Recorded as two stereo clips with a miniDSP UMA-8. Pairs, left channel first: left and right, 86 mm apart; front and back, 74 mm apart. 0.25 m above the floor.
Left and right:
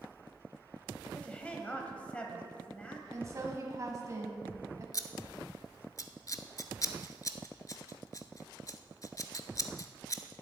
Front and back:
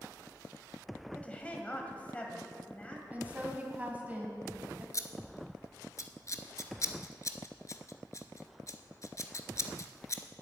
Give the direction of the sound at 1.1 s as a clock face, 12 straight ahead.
11 o'clock.